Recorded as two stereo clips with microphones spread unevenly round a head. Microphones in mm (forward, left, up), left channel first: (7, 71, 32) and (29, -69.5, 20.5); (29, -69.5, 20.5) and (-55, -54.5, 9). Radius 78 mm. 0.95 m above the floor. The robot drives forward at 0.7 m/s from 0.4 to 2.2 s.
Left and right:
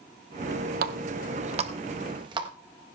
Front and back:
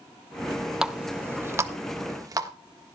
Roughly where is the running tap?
Right.